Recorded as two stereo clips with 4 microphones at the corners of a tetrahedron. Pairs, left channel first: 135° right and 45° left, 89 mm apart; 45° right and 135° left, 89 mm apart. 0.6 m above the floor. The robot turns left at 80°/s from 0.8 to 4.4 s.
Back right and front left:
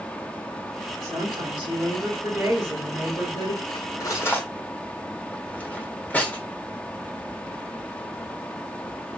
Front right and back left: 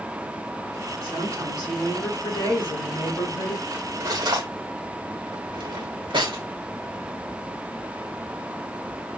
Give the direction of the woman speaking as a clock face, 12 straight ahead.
9 o'clock.